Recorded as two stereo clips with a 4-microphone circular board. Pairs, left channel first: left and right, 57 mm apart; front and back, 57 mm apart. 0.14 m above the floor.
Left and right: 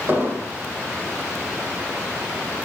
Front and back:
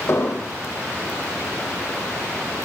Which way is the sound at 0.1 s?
40° right.